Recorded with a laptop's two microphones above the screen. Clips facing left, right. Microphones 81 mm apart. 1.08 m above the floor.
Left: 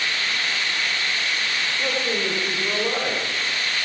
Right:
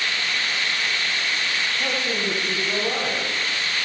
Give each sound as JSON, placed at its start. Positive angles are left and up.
{"t": 1.8, "sound": "a man speaking", "side_deg": 35, "distance_m": 3.5}